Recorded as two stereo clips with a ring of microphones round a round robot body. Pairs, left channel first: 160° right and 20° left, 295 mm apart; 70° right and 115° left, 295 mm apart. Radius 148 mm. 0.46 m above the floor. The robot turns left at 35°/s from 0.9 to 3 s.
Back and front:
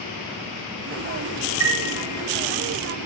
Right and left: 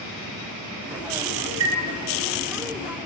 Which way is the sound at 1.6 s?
70° left.